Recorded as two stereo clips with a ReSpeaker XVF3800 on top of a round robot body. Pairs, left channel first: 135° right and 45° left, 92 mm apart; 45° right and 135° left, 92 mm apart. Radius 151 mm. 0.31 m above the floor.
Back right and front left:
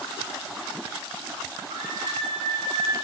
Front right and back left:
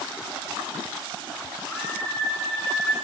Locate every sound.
1.7 s a scream: 35° left, 6.5 m